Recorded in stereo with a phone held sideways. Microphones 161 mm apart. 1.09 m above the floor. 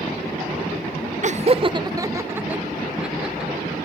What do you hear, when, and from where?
1.2 s laughter: 50° right (ahead or behind), 0.7 m; by 3.7 s centre (ahead or behind), 3 m